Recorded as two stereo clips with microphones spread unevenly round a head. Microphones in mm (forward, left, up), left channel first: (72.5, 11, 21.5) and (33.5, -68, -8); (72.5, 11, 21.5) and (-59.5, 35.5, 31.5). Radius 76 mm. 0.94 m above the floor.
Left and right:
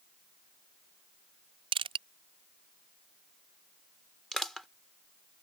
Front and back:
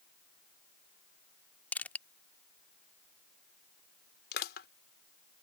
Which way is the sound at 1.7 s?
90° right.